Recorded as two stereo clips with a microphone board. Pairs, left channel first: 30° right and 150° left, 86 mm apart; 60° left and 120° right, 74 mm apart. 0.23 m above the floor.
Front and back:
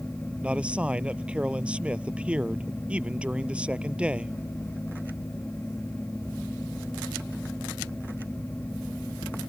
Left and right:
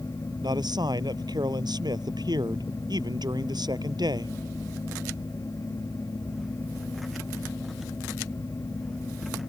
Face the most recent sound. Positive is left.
turn(degrees=-135)